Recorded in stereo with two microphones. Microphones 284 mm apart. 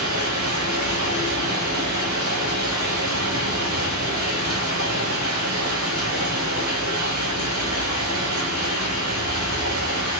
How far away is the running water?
About 1.4 m.